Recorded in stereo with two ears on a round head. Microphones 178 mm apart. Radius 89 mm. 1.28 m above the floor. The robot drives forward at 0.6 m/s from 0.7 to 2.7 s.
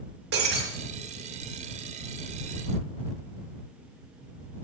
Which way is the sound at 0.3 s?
55° right (ahead or behind).